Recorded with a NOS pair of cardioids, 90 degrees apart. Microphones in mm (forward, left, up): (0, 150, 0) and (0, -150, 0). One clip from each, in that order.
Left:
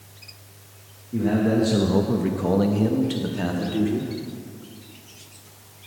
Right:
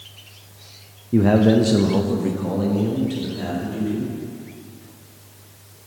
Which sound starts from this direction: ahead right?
A man speaking, at 1.1 s.